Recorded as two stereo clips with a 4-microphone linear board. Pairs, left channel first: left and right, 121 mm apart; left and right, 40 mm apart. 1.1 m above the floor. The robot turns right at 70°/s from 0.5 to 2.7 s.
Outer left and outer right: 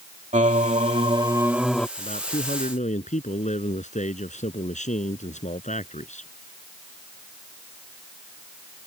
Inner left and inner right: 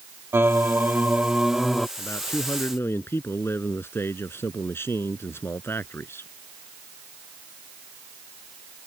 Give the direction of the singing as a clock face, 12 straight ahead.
3 o'clock.